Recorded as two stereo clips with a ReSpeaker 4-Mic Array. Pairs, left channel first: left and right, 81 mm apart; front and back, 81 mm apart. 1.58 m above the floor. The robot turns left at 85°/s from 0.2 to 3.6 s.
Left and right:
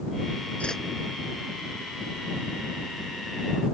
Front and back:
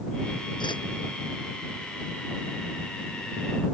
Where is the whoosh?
20° left; by 0.8 s straight ahead.